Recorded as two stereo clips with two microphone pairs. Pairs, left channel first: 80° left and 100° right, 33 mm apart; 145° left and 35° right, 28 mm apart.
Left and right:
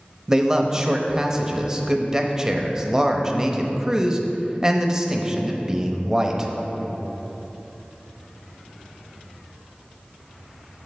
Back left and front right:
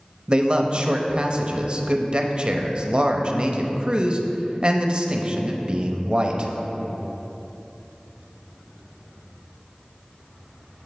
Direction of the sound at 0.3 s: 40° right.